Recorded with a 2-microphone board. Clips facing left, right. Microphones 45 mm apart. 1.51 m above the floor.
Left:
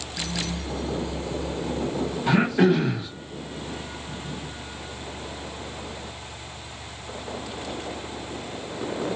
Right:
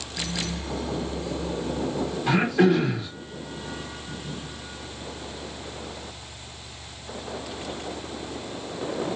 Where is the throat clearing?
5° left (ahead or behind), 1.4 m.